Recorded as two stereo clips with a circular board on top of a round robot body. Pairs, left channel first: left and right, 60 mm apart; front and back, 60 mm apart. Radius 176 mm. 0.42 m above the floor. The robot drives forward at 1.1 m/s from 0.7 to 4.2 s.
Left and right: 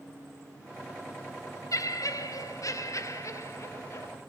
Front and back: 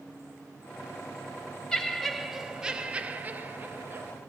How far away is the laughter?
About 2.5 m.